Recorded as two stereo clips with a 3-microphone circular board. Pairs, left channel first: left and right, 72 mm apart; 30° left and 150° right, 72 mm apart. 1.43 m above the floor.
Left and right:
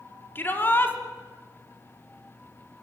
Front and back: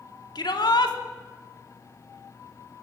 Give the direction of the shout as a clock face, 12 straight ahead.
11 o'clock.